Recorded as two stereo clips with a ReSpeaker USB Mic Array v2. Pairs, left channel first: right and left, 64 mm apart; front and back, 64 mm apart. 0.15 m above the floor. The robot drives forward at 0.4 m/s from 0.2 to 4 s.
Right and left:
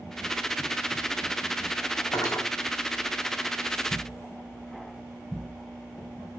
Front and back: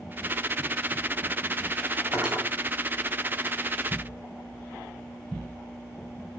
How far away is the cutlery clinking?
About 4 m.